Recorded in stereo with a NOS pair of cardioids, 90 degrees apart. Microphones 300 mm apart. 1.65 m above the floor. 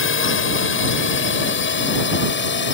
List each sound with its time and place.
0.0 s a drone: 45° left; by 2.7 s 40° left